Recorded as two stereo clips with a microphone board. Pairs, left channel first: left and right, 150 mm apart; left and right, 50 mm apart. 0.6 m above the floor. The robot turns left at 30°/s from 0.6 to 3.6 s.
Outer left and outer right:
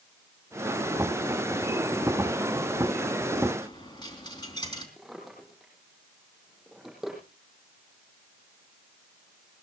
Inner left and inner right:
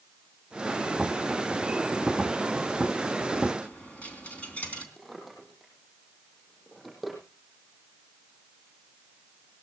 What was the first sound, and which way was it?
A dropped coin, 30° left (ahead or behind).